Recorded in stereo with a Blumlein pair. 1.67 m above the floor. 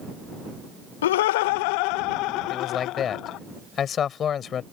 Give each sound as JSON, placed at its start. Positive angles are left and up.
{"t": 1.0, "sound": "laughter", "azimuth_deg": 60}
{"t": 2.5, "sound": "a man speaking", "azimuth_deg": 25}